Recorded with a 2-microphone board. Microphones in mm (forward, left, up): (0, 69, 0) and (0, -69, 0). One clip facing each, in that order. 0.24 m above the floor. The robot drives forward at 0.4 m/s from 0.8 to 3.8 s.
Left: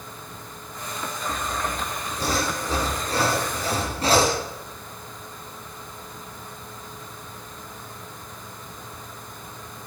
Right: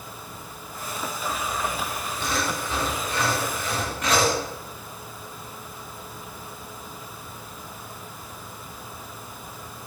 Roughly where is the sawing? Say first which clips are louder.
Left 1 dB; left.